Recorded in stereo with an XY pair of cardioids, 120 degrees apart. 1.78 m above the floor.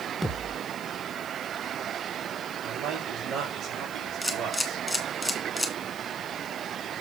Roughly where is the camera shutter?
Ahead.